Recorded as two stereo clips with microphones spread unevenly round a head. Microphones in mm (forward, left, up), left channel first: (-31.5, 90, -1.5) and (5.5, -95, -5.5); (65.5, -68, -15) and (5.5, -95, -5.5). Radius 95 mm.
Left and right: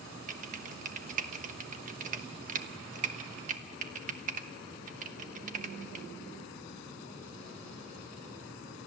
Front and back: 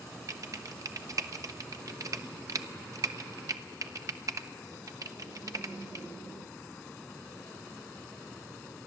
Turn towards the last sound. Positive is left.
turn(degrees=-125)